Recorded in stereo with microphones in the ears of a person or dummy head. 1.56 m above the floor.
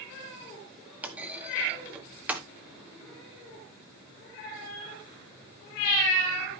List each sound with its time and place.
1.0 s a clunk: 10° right (ahead or behind), 1.1 m